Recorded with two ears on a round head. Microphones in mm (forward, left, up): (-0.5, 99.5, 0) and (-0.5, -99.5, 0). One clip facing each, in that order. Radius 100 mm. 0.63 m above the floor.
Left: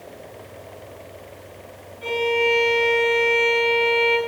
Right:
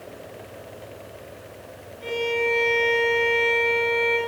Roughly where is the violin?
Left.